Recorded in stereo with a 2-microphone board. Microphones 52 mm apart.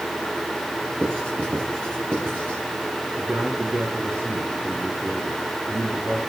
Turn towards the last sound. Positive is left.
turn(degrees=-50)  # may be behind; listen again after turning